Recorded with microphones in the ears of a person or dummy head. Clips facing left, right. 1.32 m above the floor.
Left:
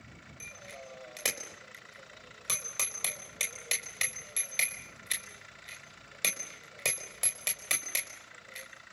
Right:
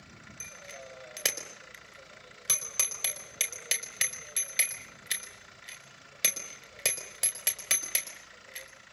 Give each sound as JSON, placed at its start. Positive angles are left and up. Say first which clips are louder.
{"t": 0.4, "sound": "a bicycle bell", "louder": "even", "side_deg": -10, "distance_m": 4.5}